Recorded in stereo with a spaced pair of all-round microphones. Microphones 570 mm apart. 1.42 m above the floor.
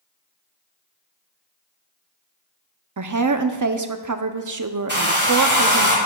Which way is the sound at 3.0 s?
35° right (ahead or behind).